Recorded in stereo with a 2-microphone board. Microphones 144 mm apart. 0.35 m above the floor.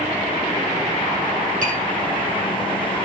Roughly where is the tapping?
Right.